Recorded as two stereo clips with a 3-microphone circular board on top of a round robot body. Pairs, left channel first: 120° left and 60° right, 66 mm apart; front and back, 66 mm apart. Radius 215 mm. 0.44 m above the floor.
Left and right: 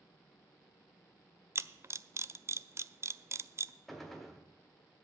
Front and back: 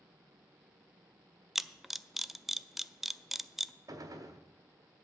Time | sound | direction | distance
1.6 | a camera shutter | 95° right | 0.6 m
3.9 | a gunshot | 155° right | 1.4 m